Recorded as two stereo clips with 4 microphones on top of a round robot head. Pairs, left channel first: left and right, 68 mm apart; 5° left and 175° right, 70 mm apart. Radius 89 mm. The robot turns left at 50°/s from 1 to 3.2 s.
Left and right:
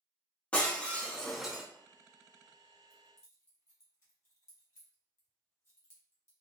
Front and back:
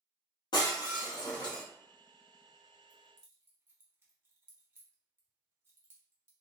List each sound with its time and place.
0.5 s breaking glass: 20° left, 0.5 m; by 1.6 s 10° right, 0.5 m
2.9 s keys jangling: 150° left, 1.3 m; by 6.3 s 135° left, 1.3 m